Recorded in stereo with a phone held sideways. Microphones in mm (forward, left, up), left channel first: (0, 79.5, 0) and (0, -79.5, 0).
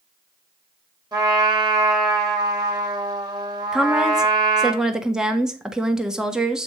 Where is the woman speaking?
5° right (ahead or behind), 1.1 m.